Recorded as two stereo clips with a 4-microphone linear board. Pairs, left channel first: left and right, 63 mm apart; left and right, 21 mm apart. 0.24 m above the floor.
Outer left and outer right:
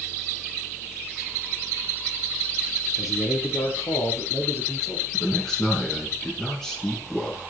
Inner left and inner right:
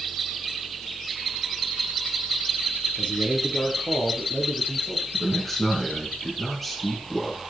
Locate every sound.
3.0 s a man speaking: 80° left, 5.5 m; by 5.0 s 75° left (ahead or behind), 6 m
5.1 s a man speaking: 10° left (ahead or behind), 5 m